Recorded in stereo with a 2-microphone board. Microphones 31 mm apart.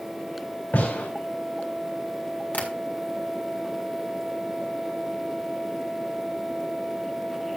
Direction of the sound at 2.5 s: 50° left (ahead or behind).